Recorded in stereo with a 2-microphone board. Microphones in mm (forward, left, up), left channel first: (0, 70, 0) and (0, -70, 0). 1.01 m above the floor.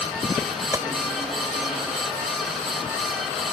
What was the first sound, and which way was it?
A gunshot, 20° right (ahead or behind).